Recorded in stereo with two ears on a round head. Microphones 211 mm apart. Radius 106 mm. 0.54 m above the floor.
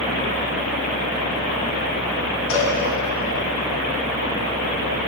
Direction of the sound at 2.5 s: 60° left (ahead or behind).